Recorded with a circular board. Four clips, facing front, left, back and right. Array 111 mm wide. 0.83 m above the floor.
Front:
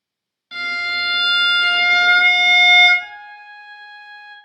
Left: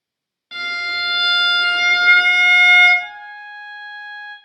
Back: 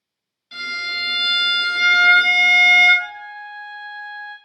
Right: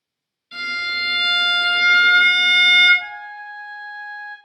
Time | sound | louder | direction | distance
0.5 | a violin | left 2 dB, front 4 dB | 70° left | 0.9 m
3.0 | a flute | even, back 3 dB | 170° right | 0.7 m